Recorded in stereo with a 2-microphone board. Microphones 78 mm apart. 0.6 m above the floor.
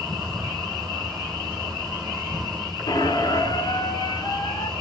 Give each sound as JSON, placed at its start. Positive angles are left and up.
{"t": 0.0, "sound": "an insect", "side_deg": -40, "distance_m": 3.0}
{"t": 2.9, "sound": "a squeak", "side_deg": 60, "distance_m": 1.8}